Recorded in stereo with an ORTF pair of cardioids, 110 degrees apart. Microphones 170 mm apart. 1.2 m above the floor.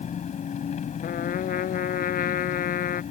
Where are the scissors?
No scissors in this recording.